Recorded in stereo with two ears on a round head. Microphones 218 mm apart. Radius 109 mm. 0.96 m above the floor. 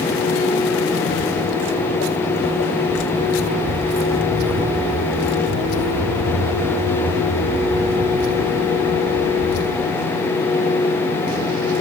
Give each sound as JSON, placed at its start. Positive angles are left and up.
{"t": 1.1, "sound": "footsteps", "side_deg": 40, "distance_m": 1.4}